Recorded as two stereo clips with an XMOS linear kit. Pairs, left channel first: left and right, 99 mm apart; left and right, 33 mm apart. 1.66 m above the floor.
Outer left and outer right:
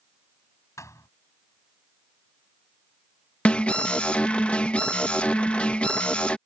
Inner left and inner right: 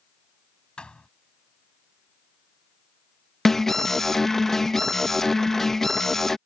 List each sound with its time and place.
0.8 s a thud: 30° left (ahead or behind)
3.5 s an alarm: 10° left (ahead or behind)